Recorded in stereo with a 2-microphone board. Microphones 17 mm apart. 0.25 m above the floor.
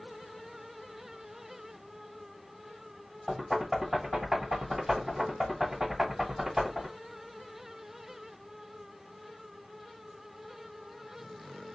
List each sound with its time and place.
3.3 s knocking: 20° right (ahead or behind), 1.7 m